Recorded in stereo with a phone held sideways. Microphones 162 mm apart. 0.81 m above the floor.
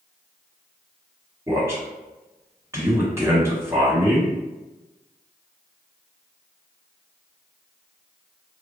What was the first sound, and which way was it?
A man speaking, 15° right (ahead or behind).